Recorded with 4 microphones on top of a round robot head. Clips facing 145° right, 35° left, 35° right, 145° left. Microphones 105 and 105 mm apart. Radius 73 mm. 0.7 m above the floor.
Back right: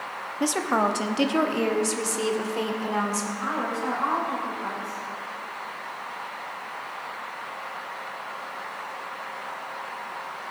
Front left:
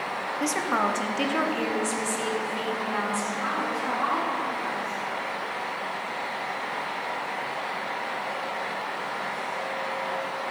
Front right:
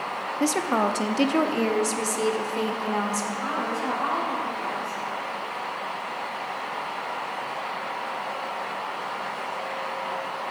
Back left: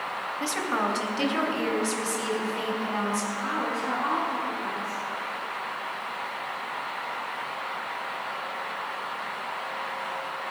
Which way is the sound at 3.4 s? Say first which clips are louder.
Even, front right 1 dB; 75° right.